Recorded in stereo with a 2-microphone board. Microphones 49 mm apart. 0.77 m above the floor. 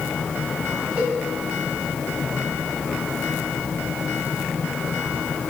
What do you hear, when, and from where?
1.0 s a cowbell: 30° right (ahead or behind), 4.5 m